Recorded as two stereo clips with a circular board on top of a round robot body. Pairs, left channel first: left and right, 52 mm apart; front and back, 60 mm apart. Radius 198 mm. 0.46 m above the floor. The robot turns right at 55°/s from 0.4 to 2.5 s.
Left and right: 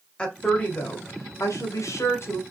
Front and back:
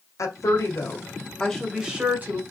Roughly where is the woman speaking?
Ahead.